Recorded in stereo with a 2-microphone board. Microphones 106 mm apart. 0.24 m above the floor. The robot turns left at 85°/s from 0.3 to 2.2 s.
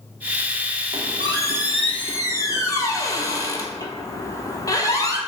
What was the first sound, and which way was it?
A squeak, 105° right.